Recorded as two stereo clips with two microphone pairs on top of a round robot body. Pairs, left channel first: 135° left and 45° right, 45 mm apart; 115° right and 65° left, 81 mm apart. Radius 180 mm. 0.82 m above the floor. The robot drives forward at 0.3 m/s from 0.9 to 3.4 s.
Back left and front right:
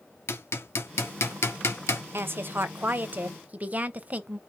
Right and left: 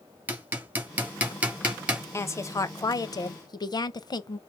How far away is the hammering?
About 1.5 m.